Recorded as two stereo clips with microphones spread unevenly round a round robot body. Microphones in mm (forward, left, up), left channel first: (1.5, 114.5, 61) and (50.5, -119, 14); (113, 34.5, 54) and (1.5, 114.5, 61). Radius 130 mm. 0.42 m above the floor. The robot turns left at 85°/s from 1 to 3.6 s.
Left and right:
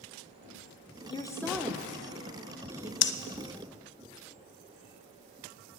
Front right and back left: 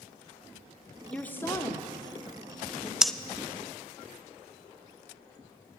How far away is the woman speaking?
About 0.8 m.